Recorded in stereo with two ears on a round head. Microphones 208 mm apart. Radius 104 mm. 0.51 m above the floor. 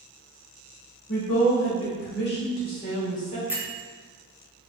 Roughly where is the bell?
Centre.